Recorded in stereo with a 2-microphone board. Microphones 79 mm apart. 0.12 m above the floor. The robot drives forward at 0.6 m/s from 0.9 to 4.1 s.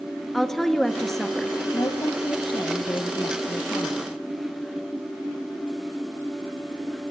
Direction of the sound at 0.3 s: 5° left (ahead or behind).